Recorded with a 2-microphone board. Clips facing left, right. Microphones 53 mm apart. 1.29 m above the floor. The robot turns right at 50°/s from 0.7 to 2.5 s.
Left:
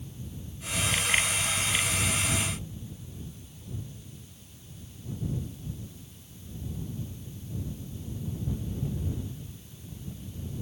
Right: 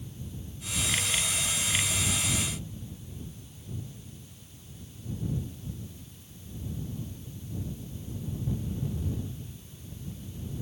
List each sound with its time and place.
Only background noise.